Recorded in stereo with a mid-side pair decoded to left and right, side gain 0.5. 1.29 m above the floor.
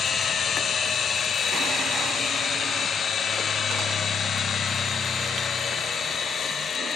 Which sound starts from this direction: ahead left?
A machine running, at 0.0 s.